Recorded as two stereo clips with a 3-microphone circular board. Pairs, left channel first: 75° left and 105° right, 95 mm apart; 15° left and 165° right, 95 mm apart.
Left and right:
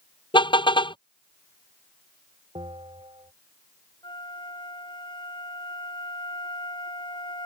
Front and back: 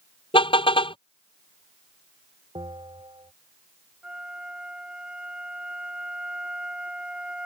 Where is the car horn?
40° left.